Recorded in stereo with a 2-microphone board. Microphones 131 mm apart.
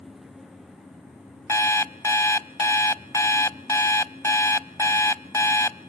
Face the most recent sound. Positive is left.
turn(degrees=25)  # may be behind; listen again after turning